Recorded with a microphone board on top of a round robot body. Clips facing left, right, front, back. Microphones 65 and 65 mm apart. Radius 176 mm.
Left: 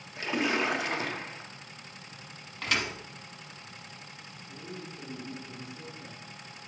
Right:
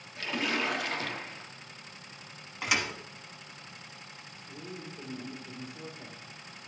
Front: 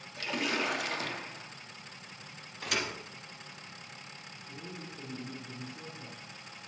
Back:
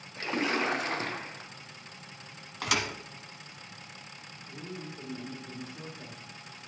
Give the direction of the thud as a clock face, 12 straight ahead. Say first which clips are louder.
Even, back 4 dB; 6 o'clock.